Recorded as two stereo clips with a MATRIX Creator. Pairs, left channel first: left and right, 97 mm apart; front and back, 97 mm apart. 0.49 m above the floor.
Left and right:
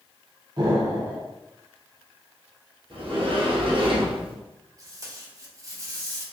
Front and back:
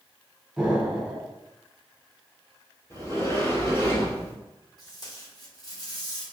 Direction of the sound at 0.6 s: 95° right.